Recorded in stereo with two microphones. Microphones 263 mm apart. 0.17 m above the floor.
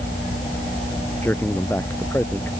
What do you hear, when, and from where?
1.2 s a man speaking: 5° left (ahead or behind)